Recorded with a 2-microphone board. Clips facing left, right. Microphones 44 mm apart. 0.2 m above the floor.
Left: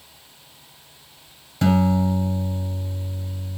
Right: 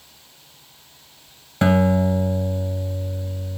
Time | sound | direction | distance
1.6 | a guitar | 45° right (ahead or behind) | 2.5 m